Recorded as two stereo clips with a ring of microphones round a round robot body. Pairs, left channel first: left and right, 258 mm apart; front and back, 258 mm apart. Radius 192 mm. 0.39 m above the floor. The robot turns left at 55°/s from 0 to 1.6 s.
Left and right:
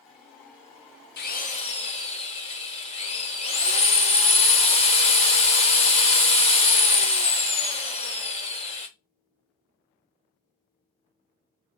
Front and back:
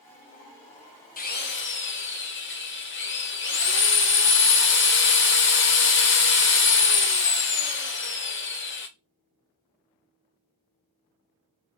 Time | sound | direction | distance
1.2 | a drill | 50° left | 0.8 m